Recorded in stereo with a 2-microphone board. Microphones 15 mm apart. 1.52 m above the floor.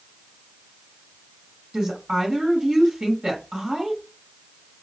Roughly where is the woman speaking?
Right.